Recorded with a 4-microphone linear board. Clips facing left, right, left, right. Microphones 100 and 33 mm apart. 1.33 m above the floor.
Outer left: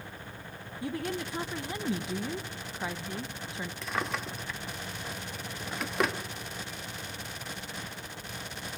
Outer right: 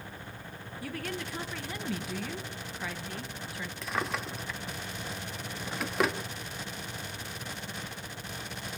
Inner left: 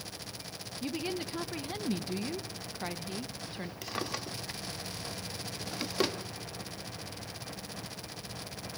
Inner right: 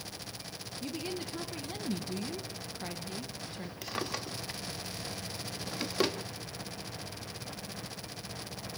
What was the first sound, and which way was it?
A woman speaking, 20° left (ahead or behind).